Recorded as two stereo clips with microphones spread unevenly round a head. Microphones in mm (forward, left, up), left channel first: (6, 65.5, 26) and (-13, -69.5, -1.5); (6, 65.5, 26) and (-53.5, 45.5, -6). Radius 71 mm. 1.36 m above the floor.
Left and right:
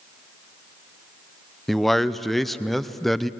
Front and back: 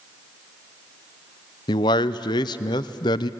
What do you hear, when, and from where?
1.7 s a man speaking: 15° right, 0.6 m